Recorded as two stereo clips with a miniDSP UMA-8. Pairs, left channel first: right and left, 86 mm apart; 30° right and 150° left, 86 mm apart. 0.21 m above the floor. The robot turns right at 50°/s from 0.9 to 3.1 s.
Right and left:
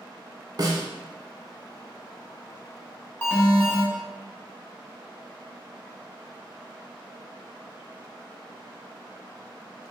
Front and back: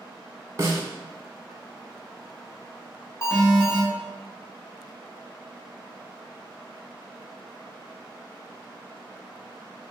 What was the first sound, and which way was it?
A snare drum, 105° left.